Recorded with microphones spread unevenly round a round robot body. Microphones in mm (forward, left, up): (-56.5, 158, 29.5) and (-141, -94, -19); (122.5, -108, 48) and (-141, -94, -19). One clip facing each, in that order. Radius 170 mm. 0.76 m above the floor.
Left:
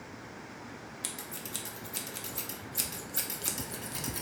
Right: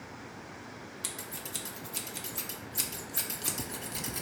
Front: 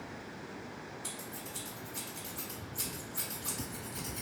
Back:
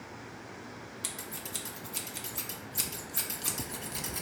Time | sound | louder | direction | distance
1.0 | scissors | even, back 1 dB | 160° left | 0.6 m